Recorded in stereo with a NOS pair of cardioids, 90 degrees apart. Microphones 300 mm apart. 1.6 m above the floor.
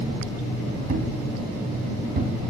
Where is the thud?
30° right, 4.5 m.